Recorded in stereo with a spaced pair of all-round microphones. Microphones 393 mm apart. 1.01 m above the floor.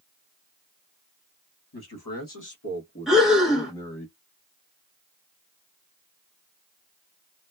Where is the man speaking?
70° left (ahead or behind), 1.2 m; by 4.1 s 5° left (ahead or behind), 1.4 m.